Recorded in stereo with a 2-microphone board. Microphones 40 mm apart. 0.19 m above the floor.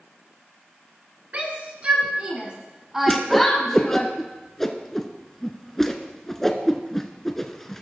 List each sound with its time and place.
1.3 s a shout: 40° right (ahead or behind), 3 m; by 4.1 s 25° left (ahead or behind), 1.7 m
3.1 s a whoosh: 10° left (ahead or behind), 0.7 m